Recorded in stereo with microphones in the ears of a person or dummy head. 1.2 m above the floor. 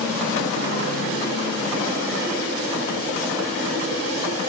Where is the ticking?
I don't hear ticking.